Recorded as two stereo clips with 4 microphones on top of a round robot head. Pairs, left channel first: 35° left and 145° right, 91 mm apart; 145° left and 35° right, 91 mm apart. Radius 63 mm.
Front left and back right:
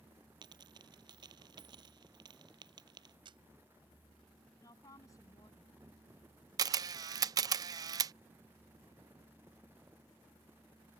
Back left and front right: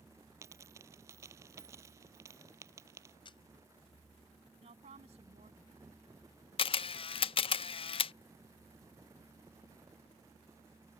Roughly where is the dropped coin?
Right.